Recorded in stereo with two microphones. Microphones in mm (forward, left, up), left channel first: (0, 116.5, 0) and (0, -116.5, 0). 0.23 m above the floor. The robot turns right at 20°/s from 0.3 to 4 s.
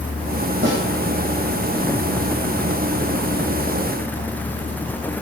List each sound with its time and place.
0.6 s a snare drum: 50° right (ahead or behind), 4 m; by 0.8 s 55° right (ahead or behind), 4 m